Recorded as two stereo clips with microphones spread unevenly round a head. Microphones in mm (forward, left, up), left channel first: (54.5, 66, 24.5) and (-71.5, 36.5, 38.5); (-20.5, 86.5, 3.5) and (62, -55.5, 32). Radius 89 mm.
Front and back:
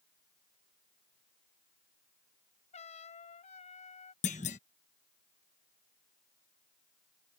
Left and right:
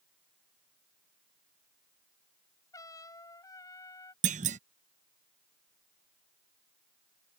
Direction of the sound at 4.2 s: 35° right.